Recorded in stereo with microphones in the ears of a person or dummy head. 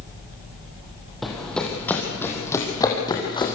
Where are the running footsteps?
Centre (ahead or behind), 4.5 m; by 3.5 s 20° left (ahead or behind), 5 m.